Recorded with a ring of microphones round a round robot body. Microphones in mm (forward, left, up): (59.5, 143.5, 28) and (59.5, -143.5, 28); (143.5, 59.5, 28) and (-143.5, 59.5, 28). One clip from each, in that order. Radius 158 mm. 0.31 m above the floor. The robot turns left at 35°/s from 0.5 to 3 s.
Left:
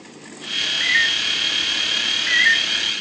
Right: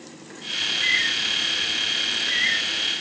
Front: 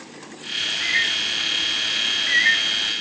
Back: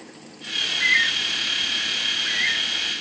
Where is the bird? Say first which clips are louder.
Left 3 dB, back 2 dB; 125° left, 3.5 m; by 2.9 s 45° left, 3.5 m.